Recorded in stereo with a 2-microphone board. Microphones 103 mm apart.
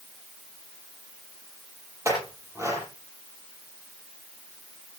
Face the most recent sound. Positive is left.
turn(degrees=-30)  # may be behind; listen again after turning